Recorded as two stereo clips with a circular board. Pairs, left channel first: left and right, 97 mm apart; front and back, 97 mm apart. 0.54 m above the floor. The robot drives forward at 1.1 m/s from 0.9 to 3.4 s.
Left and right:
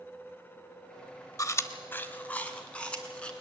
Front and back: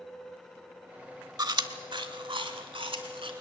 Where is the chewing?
140° left, 0.8 m; by 3.3 s 170° left, 3 m.